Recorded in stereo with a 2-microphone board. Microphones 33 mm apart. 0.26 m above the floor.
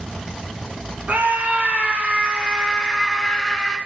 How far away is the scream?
About 3 m.